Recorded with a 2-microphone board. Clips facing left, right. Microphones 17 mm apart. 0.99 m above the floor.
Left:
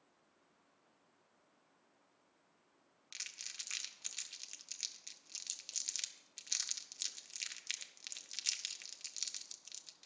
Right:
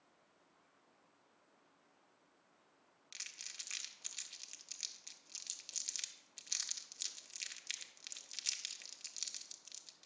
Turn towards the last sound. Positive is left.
turn(degrees=10)  # may be behind; listen again after turning